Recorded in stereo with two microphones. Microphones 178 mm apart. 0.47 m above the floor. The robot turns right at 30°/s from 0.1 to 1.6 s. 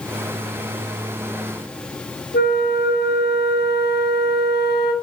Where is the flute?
70° left (ahead or behind), 3 m.